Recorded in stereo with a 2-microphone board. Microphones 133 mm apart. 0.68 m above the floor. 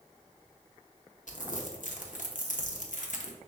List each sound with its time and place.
1.3 s crumpling: 75° left (ahead or behind), 0.7 m